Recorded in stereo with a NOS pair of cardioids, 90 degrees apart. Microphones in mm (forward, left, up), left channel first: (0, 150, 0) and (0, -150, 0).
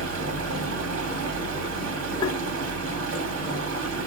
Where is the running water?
70° right, 2.5 m.